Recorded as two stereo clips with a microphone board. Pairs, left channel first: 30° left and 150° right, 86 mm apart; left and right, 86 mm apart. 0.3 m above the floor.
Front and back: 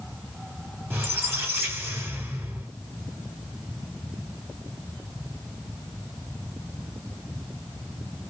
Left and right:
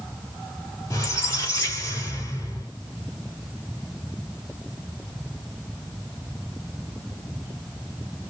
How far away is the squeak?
About 1.4 m.